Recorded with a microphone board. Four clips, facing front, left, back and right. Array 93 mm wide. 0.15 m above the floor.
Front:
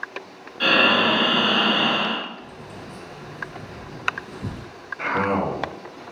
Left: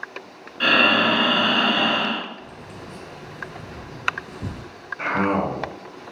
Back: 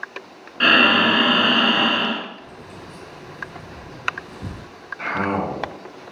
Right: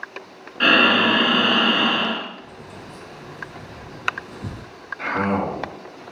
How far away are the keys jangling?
About 2.0 m.